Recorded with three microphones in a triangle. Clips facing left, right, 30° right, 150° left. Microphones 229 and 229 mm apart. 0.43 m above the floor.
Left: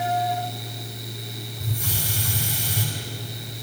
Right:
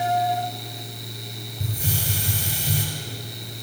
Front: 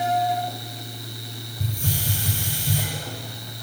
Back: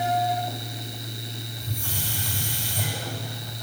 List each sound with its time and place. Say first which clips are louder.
1.6 s a hiss: right 3 dB, front 8 dB; 30° right, 4 m